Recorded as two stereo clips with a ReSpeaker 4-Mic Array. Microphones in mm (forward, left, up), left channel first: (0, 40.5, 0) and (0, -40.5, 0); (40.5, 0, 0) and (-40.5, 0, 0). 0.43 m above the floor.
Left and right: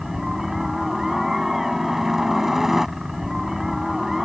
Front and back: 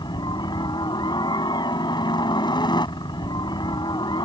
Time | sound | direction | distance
0.0 | a helicopter | 5° right | ?